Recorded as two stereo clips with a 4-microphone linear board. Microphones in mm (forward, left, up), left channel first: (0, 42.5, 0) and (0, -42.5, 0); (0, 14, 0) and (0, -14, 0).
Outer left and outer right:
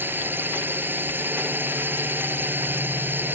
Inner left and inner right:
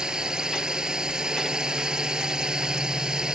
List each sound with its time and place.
0.0 s a drone: 25° right (ahead or behind)